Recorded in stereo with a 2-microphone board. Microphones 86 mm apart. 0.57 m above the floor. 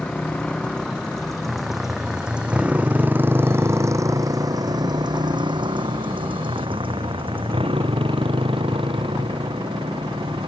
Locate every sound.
0.0 s a motorcycle: 10° left (ahead or behind); by 10.5 s 75° right (ahead or behind)